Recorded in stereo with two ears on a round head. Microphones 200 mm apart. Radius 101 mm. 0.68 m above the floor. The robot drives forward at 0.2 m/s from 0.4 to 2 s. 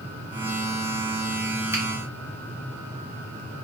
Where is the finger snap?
10° right (ahead or behind), 1.1 m.